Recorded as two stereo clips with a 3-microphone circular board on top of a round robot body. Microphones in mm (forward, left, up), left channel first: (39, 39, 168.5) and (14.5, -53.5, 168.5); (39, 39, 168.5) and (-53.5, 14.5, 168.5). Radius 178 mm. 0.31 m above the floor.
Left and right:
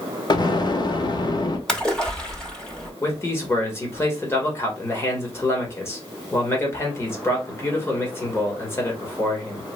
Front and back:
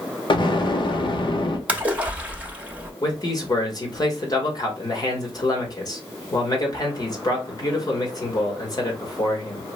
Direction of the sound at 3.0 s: 25° left.